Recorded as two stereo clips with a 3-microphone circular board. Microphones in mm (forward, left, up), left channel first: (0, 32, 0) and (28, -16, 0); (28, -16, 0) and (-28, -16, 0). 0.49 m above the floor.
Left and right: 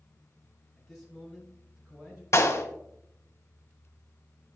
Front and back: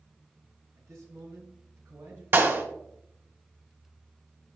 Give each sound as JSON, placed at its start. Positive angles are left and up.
{"t": 0.8, "sound": "a man speaking", "azimuth_deg": -145, "distance_m": 5.5}
{"t": 2.3, "sound": "a clap", "azimuth_deg": 140, "distance_m": 2.5}